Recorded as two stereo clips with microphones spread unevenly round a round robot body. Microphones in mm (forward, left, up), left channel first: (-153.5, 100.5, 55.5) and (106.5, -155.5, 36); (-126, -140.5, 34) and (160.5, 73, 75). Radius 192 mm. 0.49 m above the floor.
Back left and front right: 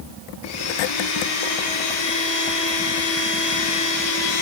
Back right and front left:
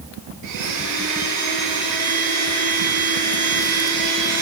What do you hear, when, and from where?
0.4 s a blender: 85° left, 8 m